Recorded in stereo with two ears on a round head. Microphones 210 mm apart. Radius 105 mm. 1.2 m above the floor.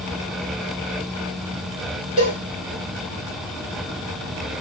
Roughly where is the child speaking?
No child speaking in this recording.